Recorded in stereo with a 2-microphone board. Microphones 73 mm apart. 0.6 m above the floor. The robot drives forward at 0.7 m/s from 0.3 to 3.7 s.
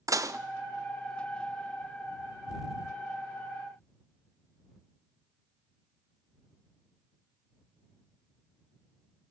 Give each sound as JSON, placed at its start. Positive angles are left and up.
{"t": 0.1, "sound": "dishes clattering", "side_deg": -50, "distance_m": 0.5}